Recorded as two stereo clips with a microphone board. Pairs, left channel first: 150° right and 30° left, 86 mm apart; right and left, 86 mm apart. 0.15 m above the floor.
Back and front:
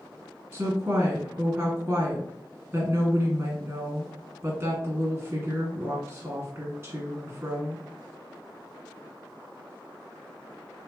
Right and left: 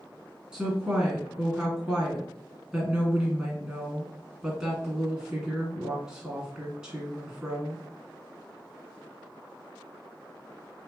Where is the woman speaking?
35° left, 1.6 m.